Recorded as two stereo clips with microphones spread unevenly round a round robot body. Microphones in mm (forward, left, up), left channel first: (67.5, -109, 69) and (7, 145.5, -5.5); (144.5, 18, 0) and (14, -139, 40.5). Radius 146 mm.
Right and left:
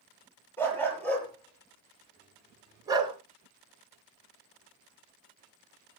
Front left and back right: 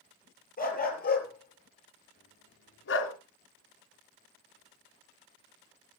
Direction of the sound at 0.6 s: 5° left.